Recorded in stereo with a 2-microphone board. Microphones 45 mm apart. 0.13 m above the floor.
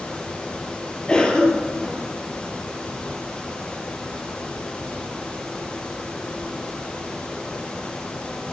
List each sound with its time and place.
1.1 s a cough: 20° left (ahead or behind), 3 m